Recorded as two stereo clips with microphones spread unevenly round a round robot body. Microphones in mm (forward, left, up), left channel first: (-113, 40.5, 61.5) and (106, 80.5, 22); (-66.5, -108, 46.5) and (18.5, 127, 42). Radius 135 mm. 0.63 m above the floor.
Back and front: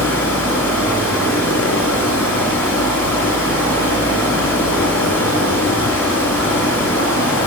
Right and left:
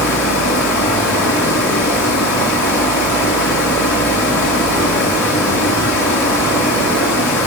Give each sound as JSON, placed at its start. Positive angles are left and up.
{"t": 0.0, "sound": "running water", "azimuth_deg": -80, "distance_m": 2.5}